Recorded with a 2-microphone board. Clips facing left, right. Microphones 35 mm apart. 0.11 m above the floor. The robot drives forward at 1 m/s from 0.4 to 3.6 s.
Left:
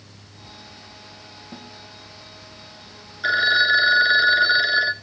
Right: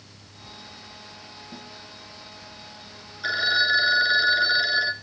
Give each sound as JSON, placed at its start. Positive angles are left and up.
{"t": 1.5, "sound": "a snare drum", "side_deg": 30, "distance_m": 4.5}
{"t": 3.2, "sound": "a phone ringing", "side_deg": 25, "distance_m": 1.0}